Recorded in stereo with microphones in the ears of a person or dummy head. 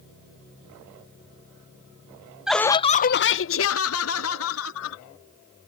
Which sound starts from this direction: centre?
Laughter, at 2.5 s.